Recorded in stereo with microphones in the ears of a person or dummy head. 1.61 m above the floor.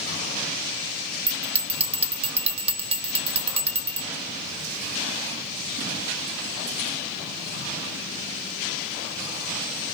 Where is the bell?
30° right (ahead or behind), 0.9 m.